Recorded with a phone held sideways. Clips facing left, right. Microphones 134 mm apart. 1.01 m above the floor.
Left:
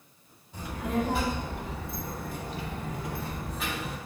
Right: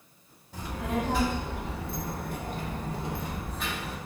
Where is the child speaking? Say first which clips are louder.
Left 1 dB; 90° right, 1.6 m; by 4.0 s 15° left (ahead or behind), 0.7 m.